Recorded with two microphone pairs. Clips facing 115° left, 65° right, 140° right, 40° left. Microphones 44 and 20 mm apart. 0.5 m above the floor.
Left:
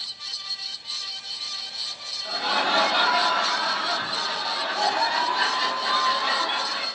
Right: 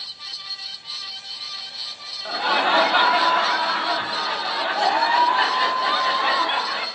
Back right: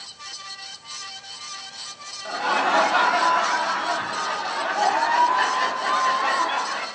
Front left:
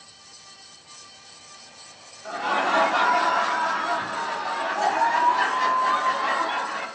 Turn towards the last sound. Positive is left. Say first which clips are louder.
# right 4 dB, back right 2 dB
turn(degrees=-85)